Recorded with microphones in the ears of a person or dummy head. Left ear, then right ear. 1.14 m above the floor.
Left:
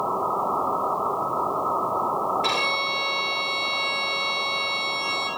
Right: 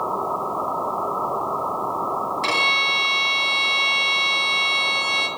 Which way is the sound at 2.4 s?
65° right (ahead or behind).